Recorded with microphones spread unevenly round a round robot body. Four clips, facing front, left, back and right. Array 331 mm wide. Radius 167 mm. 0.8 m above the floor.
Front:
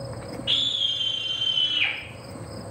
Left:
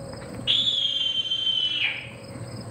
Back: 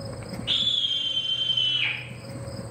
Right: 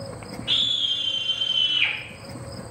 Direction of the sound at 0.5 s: 55° left.